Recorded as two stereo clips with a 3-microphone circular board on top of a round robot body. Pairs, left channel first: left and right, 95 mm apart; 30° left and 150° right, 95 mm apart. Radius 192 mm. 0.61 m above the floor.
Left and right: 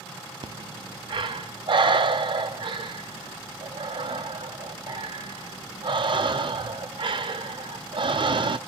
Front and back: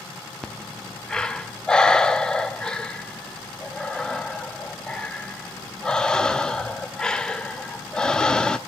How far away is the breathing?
About 0.7 m.